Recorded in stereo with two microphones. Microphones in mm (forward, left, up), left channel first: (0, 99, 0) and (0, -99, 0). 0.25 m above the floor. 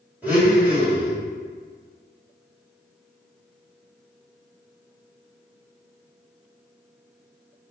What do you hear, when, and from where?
0.2 s a blender: 10° right (ahead or behind), 1.6 m